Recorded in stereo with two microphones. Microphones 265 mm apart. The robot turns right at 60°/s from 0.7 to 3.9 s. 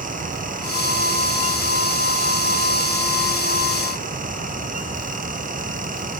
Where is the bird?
No bird in this recording.